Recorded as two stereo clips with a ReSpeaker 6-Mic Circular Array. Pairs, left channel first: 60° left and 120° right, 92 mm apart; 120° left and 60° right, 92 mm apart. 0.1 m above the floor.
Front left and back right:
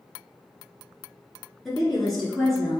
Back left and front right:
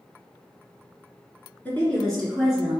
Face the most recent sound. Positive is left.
turn(degrees=-25)